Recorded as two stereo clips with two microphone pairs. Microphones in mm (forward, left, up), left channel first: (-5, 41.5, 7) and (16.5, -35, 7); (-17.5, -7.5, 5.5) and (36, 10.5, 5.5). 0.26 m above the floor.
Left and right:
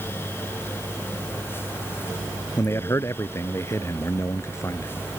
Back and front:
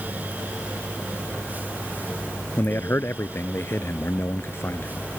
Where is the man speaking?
155° left.